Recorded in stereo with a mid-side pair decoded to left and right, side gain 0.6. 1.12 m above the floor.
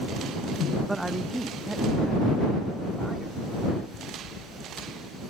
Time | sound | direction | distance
0.9 | a man speaking | 10° right | ?